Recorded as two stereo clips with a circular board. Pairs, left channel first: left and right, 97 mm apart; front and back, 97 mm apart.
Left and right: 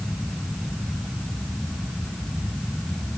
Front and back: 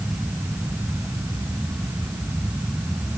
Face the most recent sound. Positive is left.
No sound to turn to.